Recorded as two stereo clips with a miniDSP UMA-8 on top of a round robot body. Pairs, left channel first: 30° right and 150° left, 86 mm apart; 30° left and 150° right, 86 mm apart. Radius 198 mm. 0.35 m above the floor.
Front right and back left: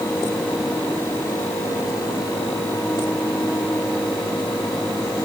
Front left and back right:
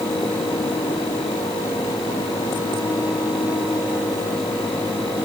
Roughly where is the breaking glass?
No breaking glass in this recording.